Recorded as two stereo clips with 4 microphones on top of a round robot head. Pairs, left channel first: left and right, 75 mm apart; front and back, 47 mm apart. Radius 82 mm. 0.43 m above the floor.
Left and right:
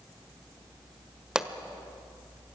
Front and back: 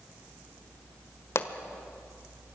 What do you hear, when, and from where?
1.4 s a pop: 10° right, 1.4 m